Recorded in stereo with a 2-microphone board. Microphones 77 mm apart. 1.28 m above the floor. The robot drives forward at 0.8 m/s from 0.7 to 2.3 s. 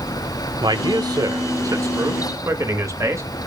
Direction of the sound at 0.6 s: 70° right (ahead or behind).